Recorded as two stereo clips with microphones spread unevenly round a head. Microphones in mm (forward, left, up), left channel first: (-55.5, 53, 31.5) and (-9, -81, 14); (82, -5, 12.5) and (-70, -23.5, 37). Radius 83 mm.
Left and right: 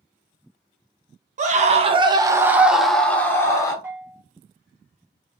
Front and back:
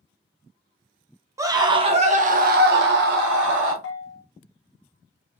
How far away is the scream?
About 0.9 m.